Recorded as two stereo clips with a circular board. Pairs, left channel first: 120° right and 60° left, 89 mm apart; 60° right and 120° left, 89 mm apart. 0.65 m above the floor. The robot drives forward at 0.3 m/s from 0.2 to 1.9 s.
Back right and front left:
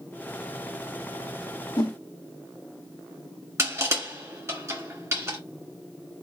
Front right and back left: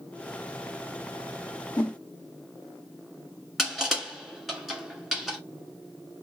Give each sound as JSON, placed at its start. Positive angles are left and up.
{"t": 1.8, "sound": "a whoosh", "azimuth_deg": -125, "distance_m": 1.1}
{"t": 3.6, "sound": "crushing", "azimuth_deg": 35, "distance_m": 1.3}